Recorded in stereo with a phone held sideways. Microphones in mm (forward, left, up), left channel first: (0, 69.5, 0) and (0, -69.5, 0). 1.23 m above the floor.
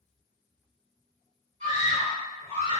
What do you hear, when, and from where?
1.6 s a scream: 55° right (ahead or behind), 1.2 m; by 2.8 s 40° right (ahead or behind), 0.6 m